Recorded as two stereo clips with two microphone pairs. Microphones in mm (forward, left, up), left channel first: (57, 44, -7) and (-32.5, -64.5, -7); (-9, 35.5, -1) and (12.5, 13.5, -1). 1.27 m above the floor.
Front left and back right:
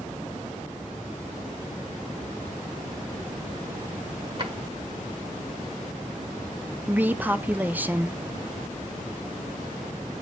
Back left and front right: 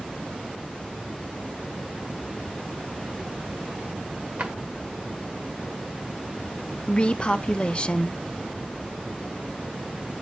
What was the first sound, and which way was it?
A drawer, 85° right.